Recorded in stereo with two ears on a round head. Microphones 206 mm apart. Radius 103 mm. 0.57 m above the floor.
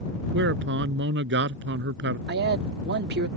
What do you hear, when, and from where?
0.3 s a man speaking: 50° right (ahead or behind)
2.3 s a man speaking: 45° right (ahead or behind)